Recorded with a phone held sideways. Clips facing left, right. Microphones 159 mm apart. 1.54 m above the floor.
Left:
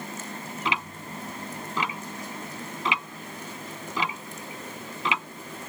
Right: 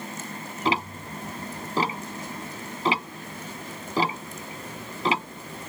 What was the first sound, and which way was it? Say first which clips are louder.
Ticking: right 6 dB; 35° right (ahead or behind).